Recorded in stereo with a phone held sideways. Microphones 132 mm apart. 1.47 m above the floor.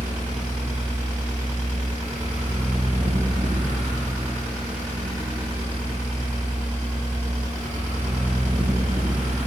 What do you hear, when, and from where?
0.0 s a fan: 70° right (ahead or behind), 0.8 m